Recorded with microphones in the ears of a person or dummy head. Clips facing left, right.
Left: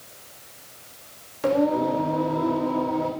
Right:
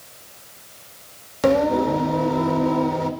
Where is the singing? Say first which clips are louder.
Right 3 dB; 70° right (ahead or behind), 1.1 m.